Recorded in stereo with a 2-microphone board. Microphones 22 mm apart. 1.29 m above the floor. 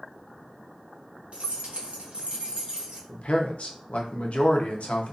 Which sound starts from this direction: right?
Keys jangling, at 1.3 s.